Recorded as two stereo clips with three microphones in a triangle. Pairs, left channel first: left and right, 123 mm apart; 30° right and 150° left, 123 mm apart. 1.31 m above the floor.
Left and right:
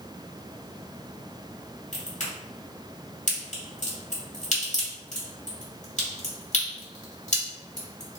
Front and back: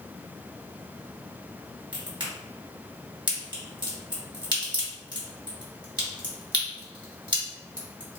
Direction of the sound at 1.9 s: 100° left.